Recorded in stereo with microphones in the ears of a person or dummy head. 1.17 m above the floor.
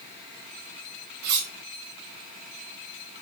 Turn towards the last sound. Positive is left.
turn(degrees=-50)  # may be behind; listen again after turning